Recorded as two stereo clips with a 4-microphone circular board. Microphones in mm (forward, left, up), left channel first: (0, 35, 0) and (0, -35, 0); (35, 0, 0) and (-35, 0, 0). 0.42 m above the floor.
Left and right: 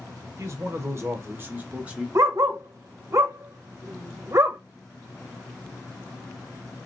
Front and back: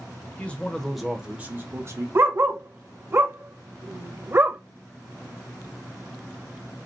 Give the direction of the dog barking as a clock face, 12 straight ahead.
4 o'clock.